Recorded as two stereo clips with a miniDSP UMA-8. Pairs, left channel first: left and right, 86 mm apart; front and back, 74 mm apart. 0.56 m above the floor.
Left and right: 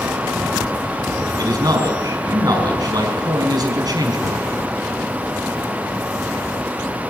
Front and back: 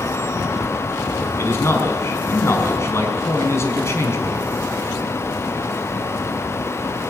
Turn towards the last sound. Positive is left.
turn(degrees=-50)